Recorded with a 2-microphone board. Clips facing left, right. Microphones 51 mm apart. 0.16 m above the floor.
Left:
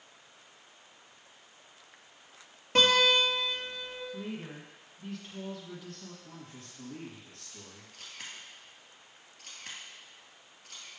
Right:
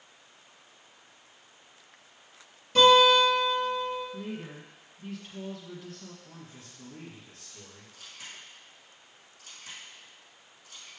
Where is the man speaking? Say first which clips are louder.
Even; 35° left (ahead or behind), 3 m.